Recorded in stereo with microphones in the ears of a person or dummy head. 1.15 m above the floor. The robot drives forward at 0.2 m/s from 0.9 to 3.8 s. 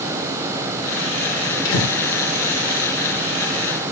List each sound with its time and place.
1.6 s breathing: 70° left (ahead or behind), 1.3 m